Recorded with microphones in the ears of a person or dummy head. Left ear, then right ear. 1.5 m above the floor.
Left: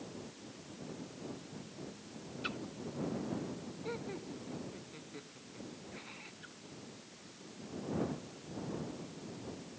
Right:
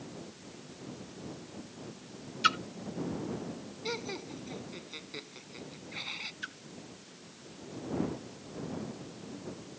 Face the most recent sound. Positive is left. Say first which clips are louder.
# right 12 dB
turn(degrees=-70)  # may be behind; listen again after turning